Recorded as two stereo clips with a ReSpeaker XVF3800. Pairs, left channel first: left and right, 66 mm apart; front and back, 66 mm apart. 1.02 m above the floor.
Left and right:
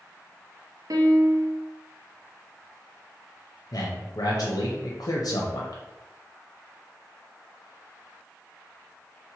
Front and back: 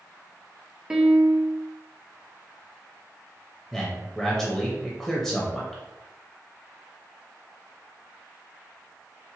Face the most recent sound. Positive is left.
turn(degrees=85)